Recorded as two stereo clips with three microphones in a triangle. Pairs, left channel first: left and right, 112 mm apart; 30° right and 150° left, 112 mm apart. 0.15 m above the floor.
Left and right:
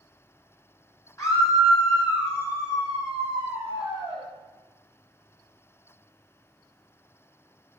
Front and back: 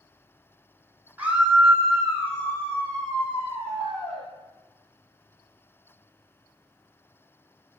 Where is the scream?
95° left, 1.1 m; by 4.2 s 35° left, 2.5 m.